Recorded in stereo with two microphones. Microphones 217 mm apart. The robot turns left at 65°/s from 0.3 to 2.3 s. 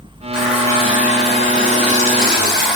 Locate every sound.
0.3 s a running tap: 175° right, 2.5 m; by 2.8 s 55° left, 2.5 m